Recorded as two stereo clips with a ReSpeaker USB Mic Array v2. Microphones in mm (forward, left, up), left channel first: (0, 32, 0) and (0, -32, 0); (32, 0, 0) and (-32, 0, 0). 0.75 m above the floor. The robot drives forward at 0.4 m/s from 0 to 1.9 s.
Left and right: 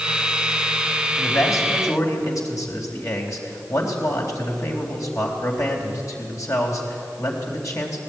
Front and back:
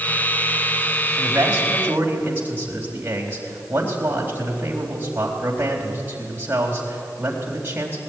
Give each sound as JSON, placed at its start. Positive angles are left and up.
{"t": 1.2, "sound": "a man speaking", "azimuth_deg": 120, "distance_m": 3.5}